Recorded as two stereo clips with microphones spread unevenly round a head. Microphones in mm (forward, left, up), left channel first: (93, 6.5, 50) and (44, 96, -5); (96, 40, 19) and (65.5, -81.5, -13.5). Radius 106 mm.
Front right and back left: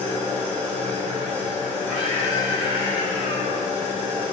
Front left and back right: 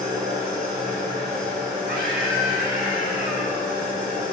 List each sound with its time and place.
0.0 s an engine running: 170° right, 6 m
1.9 s a scream: 140° right, 5.5 m